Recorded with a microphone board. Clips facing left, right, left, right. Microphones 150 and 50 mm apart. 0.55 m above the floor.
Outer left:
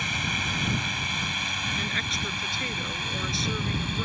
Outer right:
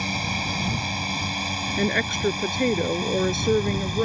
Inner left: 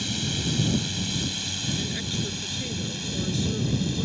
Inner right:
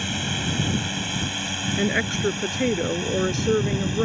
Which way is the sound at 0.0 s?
35° right (ahead or behind).